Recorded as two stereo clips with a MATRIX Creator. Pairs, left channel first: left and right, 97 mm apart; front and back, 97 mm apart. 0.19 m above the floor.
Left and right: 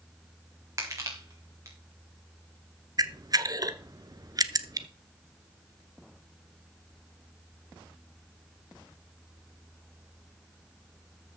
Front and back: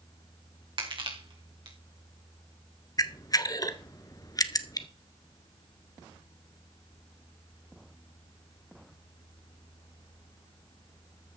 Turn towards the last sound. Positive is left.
turn(degrees=-45)